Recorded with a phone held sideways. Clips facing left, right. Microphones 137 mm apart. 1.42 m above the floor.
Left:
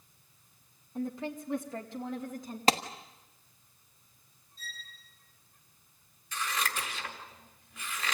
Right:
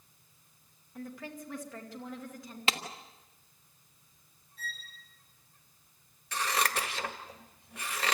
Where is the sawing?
No sawing in this recording.